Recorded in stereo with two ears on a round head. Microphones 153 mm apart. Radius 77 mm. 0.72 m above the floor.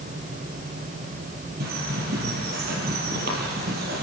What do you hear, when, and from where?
1.6 s a bird: 65° right (ahead or behind), 4.5 m